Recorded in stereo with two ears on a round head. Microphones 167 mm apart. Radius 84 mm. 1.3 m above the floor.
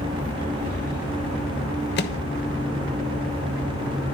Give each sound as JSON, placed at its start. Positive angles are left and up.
{"t": 2.0, "sound": "a microwave", "side_deg": 55, "distance_m": 1.1}